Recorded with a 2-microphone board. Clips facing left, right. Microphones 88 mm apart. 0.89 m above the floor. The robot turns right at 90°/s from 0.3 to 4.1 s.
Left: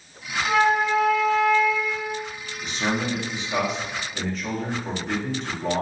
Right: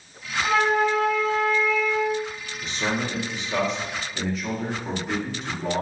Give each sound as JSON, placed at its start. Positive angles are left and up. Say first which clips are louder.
{"t": 0.4, "sound": "a flute", "louder": "left 1 dB", "azimuth_deg": -105, "distance_m": 1.5}
{"t": 2.6, "sound": "a man speaking", "louder": "left 1 dB", "side_deg": 20, "distance_m": 0.8}